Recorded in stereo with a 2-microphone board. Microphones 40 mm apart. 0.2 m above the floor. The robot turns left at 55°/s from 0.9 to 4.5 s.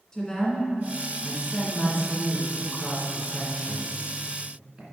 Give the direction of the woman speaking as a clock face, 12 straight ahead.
7 o'clock.